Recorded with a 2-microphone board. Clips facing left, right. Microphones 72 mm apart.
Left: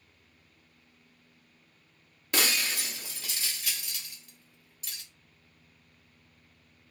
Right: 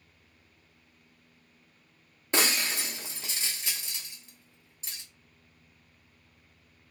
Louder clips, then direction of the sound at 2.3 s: Right 1 dB; 25° right (ahead or behind).